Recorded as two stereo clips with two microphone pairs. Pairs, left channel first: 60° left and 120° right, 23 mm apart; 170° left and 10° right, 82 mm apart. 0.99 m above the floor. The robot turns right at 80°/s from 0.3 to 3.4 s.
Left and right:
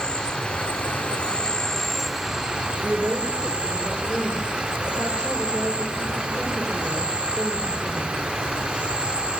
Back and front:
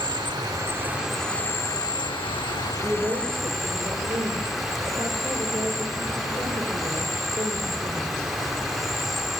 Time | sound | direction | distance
0.0 | an insect | 15° left | 1.1 m
2.8 | a woman speaking | 95° right | 3.5 m